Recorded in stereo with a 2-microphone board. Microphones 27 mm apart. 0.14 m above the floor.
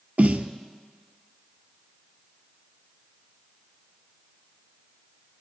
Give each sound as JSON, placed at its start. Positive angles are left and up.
{"t": 0.2, "sound": "a snare drum", "side_deg": -60, "distance_m": 0.6}